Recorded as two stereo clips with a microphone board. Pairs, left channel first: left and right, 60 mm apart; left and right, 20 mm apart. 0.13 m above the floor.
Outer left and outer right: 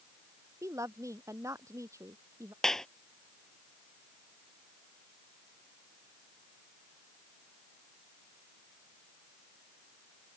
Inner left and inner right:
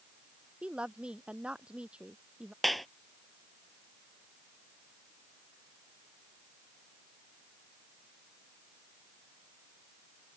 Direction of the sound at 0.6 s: 60° right (ahead or behind).